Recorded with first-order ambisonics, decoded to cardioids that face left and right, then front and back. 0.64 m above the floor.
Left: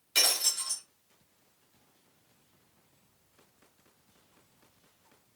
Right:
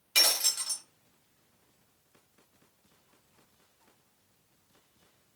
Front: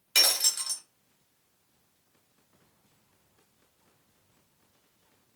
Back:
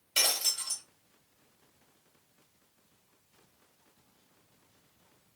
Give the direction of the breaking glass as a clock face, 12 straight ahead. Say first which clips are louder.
Right 1 dB, front 4 dB; 12 o'clock.